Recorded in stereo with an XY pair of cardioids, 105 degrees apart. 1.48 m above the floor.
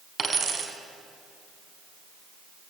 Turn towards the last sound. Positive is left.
turn(degrees=-40)